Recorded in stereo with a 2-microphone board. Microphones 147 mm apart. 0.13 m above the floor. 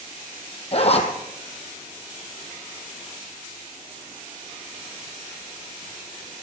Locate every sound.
0.7 s a zipper: 45° left (ahead or behind), 1.8 m